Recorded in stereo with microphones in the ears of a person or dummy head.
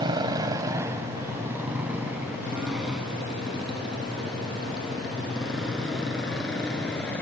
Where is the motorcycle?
25° right (ahead or behind); by 7.2 s 5° left (ahead or behind).